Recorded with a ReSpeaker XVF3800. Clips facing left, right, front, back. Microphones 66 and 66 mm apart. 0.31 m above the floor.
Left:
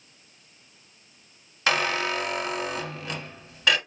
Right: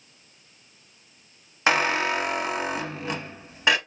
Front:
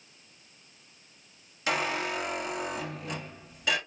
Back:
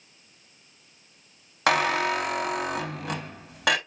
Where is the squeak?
155° right, 0.6 m.